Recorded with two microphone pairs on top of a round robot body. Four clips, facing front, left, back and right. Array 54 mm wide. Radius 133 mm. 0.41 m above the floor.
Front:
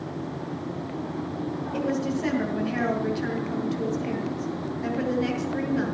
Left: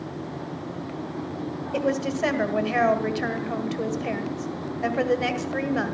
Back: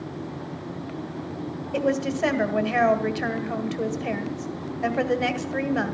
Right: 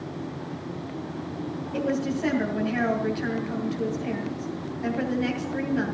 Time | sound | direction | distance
1.7 | a woman speaking | 140° left | 2 m